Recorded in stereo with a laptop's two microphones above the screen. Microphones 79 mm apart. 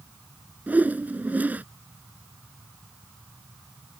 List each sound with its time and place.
0.7 s a whoosh: 20° right (ahead or behind)